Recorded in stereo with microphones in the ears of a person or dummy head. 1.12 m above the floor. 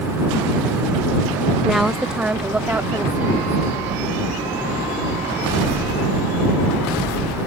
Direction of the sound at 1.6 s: Centre (ahead or behind).